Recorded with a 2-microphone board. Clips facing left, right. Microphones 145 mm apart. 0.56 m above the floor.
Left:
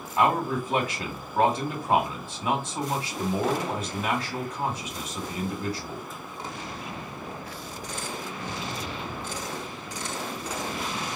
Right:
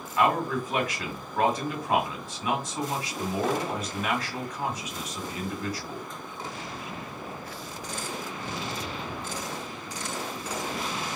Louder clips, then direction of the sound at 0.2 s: Left 1 dB; 30° left (ahead or behind).